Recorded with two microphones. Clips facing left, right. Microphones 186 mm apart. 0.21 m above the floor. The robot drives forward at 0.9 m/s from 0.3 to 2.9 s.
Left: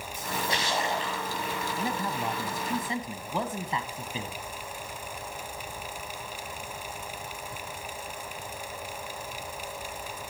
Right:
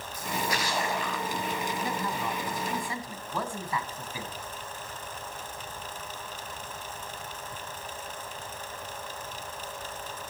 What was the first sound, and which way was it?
A splash, 25° left (ahead or behind).